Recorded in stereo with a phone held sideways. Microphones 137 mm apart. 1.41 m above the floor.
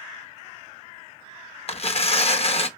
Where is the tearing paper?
50° left (ahead or behind), 1.0 m.